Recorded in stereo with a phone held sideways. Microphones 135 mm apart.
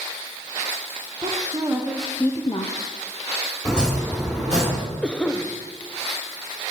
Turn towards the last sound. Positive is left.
turn(degrees=10)  # may be behind; listen again after turning